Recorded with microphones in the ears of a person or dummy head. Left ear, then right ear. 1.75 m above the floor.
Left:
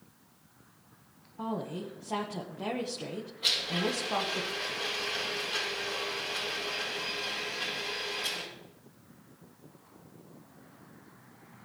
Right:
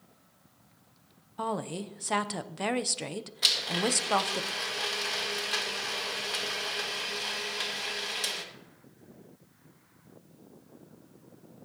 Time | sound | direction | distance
1.4 | a woman speaking | 65° right (ahead or behind) | 0.9 m
3.4 | a blender | 70° right (ahead or behind) | 2.5 m